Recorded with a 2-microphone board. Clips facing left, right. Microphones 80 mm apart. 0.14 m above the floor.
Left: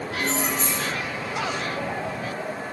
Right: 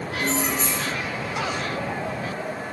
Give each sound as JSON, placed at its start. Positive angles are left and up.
{"t": 0.2, "sound": "keys jangling", "side_deg": 45, "distance_m": 1.9}